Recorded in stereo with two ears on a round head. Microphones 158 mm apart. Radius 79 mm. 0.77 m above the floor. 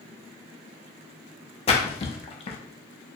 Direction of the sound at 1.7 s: 35° left (ahead or behind).